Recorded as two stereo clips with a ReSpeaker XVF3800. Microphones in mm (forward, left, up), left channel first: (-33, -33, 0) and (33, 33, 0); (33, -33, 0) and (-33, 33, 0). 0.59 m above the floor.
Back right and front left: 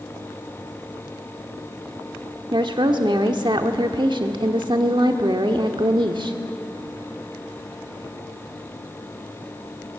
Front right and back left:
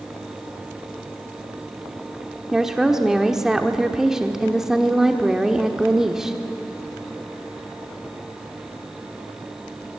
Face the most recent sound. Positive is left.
turn(degrees=50)